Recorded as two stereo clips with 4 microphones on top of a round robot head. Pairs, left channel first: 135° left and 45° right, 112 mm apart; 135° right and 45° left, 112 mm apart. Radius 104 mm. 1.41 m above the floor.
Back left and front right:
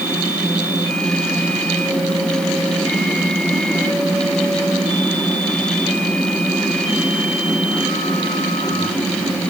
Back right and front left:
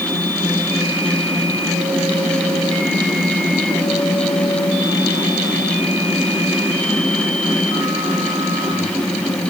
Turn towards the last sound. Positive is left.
No sound to turn to.